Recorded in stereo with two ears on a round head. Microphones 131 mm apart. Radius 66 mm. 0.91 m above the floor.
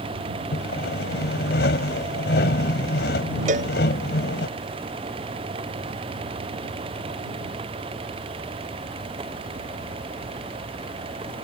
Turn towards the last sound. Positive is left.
turn(degrees=-55)  # may be behind; listen again after turning